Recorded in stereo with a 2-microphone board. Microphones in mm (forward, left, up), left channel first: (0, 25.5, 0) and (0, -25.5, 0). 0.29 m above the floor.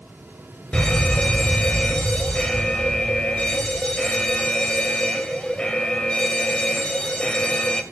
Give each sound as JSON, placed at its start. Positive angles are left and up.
{"t": 0.7, "sound": "a fire alarm", "side_deg": 20, "distance_m": 2.0}